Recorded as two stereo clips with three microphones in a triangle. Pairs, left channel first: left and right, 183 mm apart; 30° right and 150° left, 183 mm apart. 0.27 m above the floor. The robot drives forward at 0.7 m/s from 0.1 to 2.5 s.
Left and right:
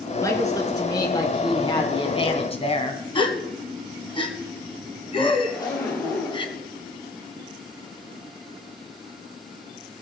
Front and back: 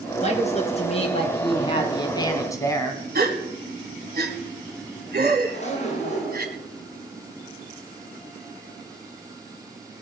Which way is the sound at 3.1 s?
145° left.